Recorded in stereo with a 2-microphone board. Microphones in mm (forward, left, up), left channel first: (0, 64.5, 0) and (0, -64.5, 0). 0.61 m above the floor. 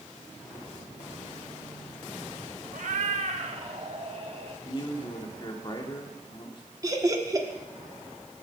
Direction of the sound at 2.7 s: 70° right (ahead or behind).